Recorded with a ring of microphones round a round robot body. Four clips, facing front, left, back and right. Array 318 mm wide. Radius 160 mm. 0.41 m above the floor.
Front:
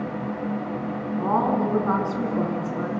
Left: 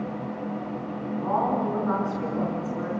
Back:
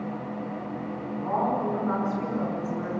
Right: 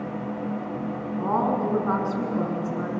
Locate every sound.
1.2 s a woman speaking: 30° right, 5.5 m